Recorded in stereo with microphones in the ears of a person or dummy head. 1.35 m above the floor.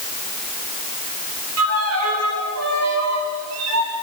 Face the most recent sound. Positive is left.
turn(degrees=-85)